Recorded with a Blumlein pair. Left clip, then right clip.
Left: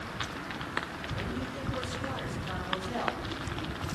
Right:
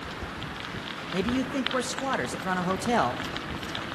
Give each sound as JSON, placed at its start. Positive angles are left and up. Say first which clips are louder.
{"t": 1.1, "sound": "a man speaking", "louder": "right 13 dB", "azimuth_deg": -50, "distance_m": 3.0}